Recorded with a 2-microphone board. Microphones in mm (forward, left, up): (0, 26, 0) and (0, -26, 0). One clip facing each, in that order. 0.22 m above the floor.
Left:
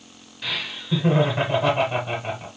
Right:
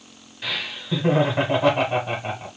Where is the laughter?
10° right (ahead or behind), 1.2 m.